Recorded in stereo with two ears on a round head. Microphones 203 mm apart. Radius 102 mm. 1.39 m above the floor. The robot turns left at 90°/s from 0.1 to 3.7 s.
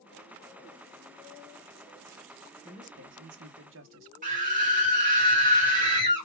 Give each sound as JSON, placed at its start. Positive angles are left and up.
{"t": 2.6, "sound": "a man speaking", "azimuth_deg": -20, "distance_m": 0.8}
{"t": 4.2, "sound": "a scream", "side_deg": -35, "distance_m": 1.7}